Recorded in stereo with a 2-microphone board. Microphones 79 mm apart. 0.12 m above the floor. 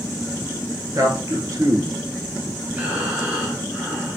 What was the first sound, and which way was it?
A man speaking, 50° right (ahead or behind).